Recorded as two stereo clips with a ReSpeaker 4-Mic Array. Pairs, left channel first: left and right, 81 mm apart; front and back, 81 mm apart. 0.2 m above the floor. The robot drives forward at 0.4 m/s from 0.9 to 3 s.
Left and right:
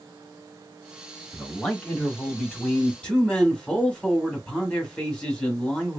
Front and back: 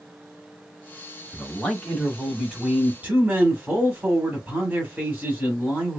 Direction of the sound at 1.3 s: 35° left.